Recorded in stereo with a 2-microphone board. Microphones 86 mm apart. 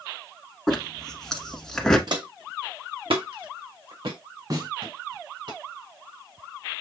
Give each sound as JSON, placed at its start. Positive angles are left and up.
{"t": 0.7, "sound": "a zipper", "side_deg": 5, "distance_m": 1.3}
{"t": 2.1, "sound": "footsteps", "side_deg": -55, "distance_m": 0.8}
{"t": 4.5, "sound": "a snare drum", "side_deg": -50, "distance_m": 2.5}